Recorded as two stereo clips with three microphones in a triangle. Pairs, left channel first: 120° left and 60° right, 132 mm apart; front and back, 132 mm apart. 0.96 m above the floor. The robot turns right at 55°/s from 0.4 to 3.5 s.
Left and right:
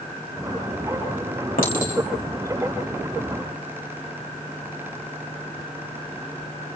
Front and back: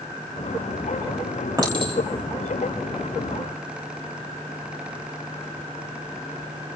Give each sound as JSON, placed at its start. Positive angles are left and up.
{"t": 1.6, "sound": "a clink", "azimuth_deg": 115, "distance_m": 3.5}